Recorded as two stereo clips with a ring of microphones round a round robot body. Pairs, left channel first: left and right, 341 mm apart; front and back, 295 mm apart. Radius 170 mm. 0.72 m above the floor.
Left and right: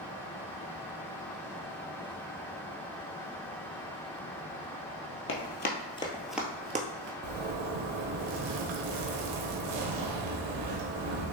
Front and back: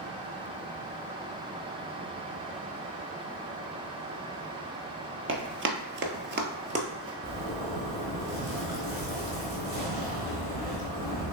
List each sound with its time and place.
5.3 s running footsteps: 140° left, 1.1 m; by 7.1 s 110° right, 0.8 m
7.2 s a zipper: 100° right, 1.0 m